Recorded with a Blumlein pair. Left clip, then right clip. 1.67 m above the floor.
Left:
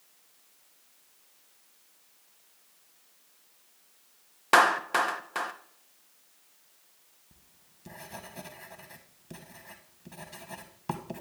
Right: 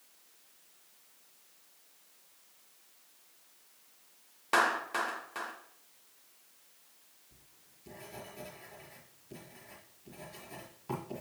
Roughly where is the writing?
Ahead left.